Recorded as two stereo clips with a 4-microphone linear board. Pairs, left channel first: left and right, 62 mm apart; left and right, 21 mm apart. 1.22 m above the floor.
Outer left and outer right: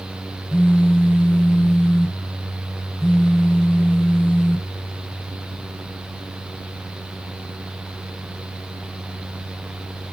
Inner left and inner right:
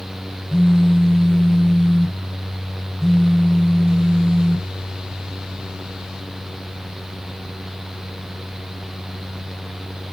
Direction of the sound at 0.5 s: 30° left (ahead or behind).